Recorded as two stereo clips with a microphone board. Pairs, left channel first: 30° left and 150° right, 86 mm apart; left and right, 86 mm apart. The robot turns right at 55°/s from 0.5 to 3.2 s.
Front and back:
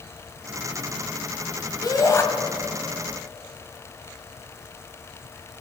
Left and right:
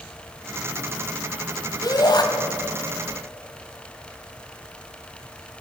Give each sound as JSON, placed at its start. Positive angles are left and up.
{"t": 1.8, "sound": "a shout", "azimuth_deg": 60, "distance_m": 1.5}